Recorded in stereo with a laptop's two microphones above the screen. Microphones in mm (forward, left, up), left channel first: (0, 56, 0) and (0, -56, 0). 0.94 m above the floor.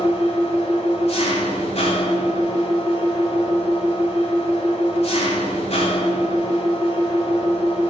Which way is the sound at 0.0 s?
65° left (ahead or behind).